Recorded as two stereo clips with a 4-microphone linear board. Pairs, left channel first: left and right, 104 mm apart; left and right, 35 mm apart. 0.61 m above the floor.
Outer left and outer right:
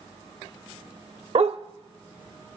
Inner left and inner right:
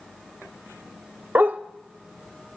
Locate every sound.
1.4 s a dog barking: 70° right (ahead or behind), 0.6 m